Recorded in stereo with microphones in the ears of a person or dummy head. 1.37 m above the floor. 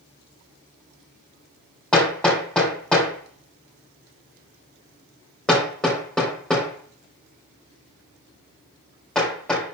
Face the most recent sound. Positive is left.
turn(degrees=5)  # may be behind; listen again after turning